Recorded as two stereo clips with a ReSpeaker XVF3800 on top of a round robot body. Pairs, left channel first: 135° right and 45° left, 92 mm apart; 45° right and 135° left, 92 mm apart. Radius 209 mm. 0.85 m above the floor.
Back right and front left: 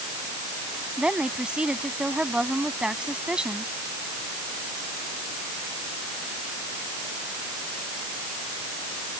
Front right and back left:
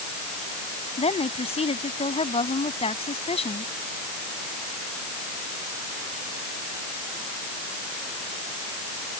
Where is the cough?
No cough in this recording.